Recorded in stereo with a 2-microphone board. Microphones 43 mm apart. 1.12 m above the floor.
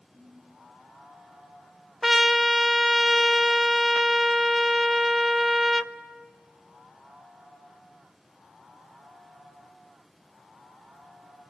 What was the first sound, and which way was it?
A ringtone, 40° right (ahead or behind).